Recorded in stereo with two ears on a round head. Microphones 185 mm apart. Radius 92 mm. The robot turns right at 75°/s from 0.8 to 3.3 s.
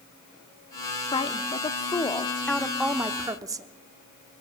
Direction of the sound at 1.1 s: 20° left (ahead or behind).